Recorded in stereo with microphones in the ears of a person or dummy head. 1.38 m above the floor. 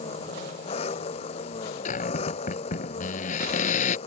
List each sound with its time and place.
0.0 s an engine running: 35° left (ahead or behind)
1.9 s a cupboard door: 40° left (ahead or behind)